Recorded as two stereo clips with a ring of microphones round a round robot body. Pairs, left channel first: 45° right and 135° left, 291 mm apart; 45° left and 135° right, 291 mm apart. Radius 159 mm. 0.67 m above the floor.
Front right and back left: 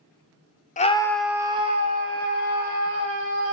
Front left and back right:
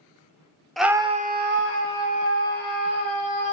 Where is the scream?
45° right, 0.6 m; by 3.5 s 175° right, 2 m.